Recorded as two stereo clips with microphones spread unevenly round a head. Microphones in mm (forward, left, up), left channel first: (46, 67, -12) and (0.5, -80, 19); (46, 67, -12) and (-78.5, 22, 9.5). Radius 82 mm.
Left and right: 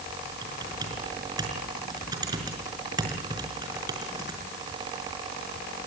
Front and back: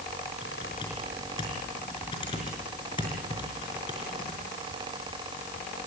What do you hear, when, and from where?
0.4 s typing on a keyboard: 45° right, 5.5 m